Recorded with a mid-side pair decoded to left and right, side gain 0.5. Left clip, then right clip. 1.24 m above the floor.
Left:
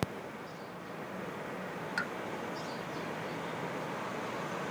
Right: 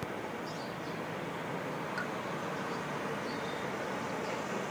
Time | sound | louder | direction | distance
2.0 | a pop | left 5 dB | 45° left | 0.9 m